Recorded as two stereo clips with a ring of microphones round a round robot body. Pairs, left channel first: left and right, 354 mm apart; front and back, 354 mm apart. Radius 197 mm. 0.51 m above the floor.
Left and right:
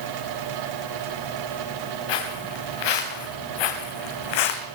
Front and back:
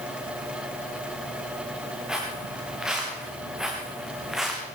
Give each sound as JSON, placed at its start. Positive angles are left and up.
{"t": 2.1, "sound": "footsteps", "azimuth_deg": 90, "distance_m": 4.0}